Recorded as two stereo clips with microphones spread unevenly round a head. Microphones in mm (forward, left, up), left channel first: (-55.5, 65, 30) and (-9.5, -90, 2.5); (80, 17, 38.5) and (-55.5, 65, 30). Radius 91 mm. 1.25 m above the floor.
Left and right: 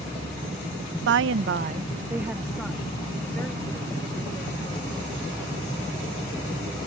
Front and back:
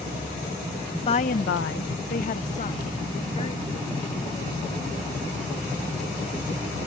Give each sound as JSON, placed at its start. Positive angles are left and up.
{"t": 1.1, "sound": "a woman speaking", "azimuth_deg": -80}